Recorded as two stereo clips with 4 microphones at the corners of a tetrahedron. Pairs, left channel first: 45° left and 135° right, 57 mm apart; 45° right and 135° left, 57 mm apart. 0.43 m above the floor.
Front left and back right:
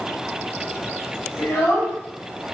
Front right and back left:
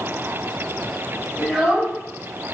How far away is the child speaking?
About 1.6 m.